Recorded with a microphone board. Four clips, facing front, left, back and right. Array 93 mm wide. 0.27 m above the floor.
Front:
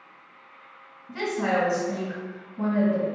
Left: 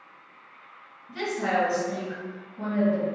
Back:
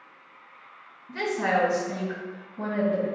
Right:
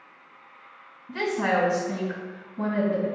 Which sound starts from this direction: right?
A woman speaking, at 1.1 s.